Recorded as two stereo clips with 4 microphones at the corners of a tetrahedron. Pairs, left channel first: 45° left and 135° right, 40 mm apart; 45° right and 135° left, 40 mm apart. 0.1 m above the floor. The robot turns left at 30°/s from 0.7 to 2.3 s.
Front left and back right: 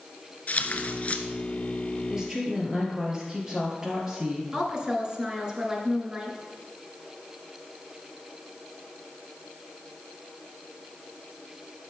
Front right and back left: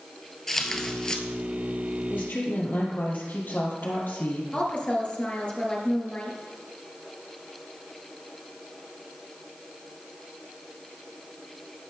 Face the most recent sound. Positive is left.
turn(degrees=-80)